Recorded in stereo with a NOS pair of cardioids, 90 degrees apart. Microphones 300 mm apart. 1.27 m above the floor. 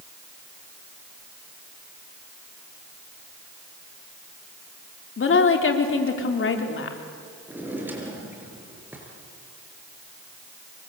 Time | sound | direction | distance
5.2 | a woman speaking | 45° left | 4 m
7.5 | a drawer | 5° right | 6.5 m